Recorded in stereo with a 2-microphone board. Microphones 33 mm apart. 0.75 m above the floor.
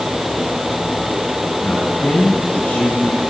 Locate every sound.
1.6 s a man speaking: 65° left (ahead or behind), 9 m